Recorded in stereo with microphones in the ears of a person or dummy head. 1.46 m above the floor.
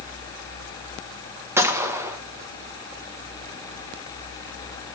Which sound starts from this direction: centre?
A gunshot, at 1.6 s.